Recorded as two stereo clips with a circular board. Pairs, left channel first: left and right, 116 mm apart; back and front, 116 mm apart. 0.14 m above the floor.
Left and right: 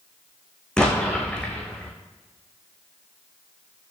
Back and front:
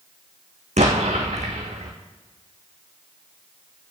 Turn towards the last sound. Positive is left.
turn(degrees=5)